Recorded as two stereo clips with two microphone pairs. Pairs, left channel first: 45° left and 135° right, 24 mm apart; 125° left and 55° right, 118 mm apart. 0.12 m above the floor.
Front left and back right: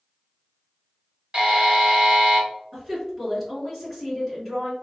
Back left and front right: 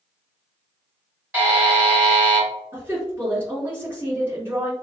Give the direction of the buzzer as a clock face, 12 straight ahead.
4 o'clock.